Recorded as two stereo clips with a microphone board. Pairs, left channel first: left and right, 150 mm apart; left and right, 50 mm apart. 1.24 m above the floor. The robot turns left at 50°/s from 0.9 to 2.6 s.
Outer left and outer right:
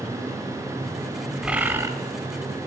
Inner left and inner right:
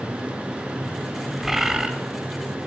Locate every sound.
1.4 s a bird: 5° right (ahead or behind), 1.0 m; by 1.9 s 20° right (ahead or behind), 1.0 m